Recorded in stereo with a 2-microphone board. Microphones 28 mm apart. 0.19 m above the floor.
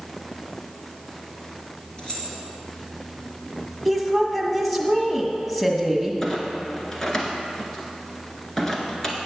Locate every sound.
2.0 s keys jangling: 30° left (ahead or behind), 2.5 m
3.9 s a woman speaking: centre (ahead or behind), 1.3 m
6.2 s a clunk: 15° left (ahead or behind), 1.4 m